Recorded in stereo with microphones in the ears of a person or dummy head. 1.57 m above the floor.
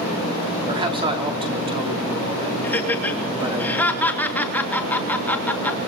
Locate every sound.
0.7 s a man speaking: 25° right (ahead or behind), 4.5 m
2.6 s laughter: 10° left (ahead or behind), 3 m